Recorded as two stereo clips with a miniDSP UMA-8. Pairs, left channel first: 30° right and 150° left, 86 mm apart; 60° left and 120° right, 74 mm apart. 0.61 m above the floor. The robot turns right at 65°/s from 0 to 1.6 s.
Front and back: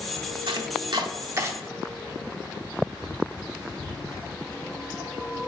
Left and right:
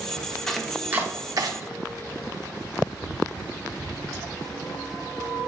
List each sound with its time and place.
0.5 s chopping: 145° left, 0.6 m; by 1.5 s 145° right, 0.6 m